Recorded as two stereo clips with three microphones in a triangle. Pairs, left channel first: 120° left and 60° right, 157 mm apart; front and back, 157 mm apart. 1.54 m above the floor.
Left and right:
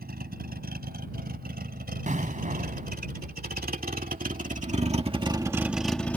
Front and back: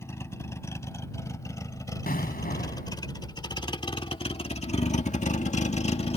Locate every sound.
0.0 s a vehicle: 75° right; by 6.2 s 45° left
2.1 s an explosion: 25° right